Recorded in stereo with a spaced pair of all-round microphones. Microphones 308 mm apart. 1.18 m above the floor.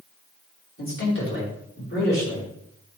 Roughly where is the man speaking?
Left.